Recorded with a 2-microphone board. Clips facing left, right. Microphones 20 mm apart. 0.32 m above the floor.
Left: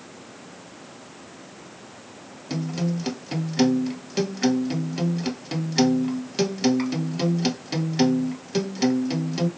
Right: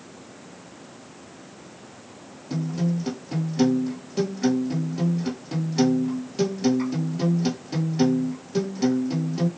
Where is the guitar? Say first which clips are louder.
Right 1 dB; 45° left (ahead or behind), 1.1 m.